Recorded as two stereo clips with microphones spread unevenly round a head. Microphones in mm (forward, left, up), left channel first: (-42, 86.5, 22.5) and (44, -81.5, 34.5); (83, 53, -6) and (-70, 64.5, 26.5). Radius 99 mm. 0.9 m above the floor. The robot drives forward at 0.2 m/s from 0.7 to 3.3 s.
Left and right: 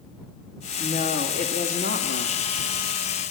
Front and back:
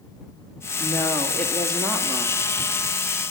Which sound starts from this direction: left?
A woman speaking, at 0.8 s.